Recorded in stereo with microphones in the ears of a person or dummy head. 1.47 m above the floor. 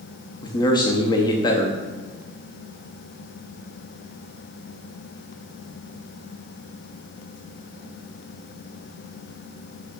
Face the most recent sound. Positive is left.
turn(degrees=30)  # may be behind; listen again after turning